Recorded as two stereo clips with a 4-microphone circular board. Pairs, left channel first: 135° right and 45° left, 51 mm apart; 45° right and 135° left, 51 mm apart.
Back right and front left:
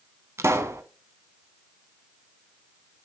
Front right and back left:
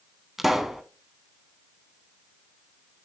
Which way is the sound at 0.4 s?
50° left.